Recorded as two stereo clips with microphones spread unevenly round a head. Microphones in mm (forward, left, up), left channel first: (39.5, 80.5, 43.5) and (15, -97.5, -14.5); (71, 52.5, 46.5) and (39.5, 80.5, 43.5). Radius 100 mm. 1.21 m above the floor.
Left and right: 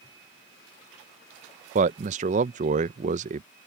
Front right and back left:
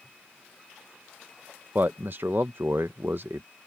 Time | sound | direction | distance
1.8 | a man speaking | 155° right | ?